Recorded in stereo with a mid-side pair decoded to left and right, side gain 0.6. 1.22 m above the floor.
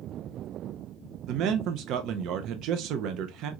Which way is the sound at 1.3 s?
65° right.